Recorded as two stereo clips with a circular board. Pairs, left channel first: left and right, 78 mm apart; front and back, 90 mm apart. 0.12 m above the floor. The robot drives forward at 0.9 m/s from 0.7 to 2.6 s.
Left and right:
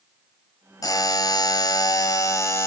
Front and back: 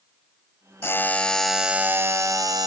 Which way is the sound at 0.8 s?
60° left.